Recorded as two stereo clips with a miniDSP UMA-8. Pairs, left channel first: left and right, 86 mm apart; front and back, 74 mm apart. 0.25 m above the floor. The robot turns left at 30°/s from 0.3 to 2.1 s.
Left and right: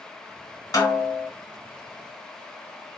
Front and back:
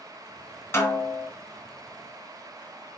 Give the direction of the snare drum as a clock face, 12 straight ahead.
10 o'clock.